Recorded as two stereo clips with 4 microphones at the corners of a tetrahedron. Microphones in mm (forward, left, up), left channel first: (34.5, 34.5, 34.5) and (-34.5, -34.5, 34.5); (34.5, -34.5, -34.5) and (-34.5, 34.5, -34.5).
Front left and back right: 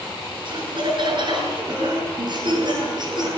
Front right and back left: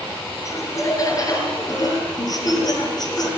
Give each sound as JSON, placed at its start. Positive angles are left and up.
{"t": 0.5, "sound": "laughter", "azimuth_deg": -105, "distance_m": 5.5}